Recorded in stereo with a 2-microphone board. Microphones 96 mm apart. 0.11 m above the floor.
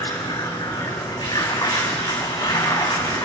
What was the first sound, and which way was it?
Running water, 55° left (ahead or behind).